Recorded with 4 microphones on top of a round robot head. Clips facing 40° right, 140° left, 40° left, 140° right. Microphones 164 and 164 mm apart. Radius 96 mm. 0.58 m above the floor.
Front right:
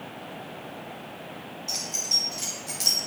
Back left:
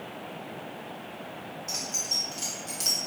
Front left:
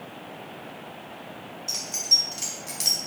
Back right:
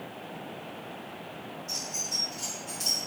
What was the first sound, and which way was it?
Keys jangling, 45° left.